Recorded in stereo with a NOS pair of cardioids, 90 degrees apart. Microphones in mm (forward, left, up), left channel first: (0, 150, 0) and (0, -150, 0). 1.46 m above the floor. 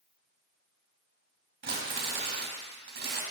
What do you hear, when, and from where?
1.6 s crumpling: 40° right, 2.0 m